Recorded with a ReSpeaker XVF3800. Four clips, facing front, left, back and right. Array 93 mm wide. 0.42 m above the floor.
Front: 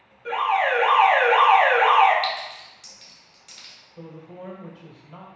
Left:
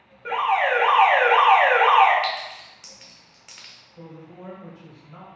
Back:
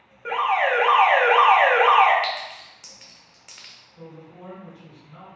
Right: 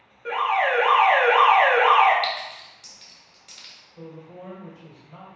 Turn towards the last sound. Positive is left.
turn(degrees=-5)